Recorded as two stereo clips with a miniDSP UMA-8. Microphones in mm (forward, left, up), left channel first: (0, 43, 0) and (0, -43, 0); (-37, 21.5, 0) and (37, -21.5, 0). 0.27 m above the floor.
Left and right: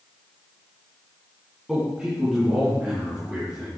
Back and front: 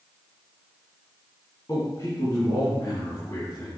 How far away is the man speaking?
About 2.5 m.